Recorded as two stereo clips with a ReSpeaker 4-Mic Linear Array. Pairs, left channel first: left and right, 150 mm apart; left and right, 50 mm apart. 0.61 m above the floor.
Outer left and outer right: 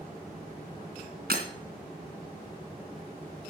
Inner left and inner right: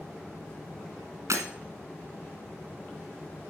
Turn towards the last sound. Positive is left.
turn(degrees=-75)  # may be behind; listen again after turning